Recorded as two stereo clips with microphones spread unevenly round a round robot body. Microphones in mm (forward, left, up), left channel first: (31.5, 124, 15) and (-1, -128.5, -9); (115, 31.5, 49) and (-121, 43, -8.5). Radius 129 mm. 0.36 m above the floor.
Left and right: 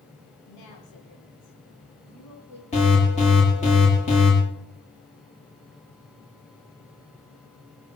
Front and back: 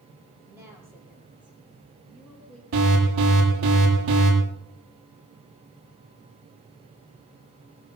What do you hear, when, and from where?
0.5 s a woman speaking: 100° left, 9.5 m; by 2.6 s 85° left, 11 m
2.7 s an alarm: 150° left, 8.5 m